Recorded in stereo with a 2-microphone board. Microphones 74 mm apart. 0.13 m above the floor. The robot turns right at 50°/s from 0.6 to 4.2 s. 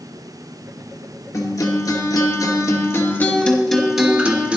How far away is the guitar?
About 2.5 m.